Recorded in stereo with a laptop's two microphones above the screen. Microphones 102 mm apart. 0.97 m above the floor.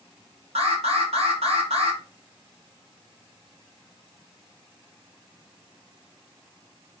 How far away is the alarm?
About 0.7 m.